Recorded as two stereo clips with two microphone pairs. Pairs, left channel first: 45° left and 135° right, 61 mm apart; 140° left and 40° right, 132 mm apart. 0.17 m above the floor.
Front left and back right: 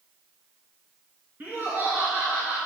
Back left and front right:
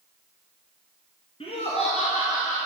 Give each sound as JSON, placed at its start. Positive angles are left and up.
{"t": 1.4, "sound": "laughter", "azimuth_deg": 170, "distance_m": 2.5}